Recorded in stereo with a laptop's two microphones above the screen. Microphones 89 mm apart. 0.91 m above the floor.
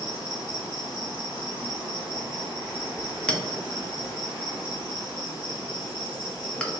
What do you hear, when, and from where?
0.0 s an insect: 40° left (ahead or behind), 1.2 m
3.3 s a clink: 10° left (ahead or behind), 0.6 m